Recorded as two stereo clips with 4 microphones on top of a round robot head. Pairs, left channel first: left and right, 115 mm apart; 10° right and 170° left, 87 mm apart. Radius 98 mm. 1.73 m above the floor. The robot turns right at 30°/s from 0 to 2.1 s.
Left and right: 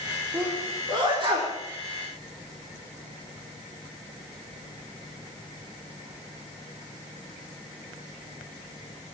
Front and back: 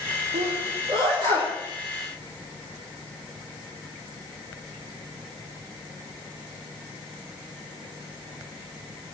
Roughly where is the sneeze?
Behind.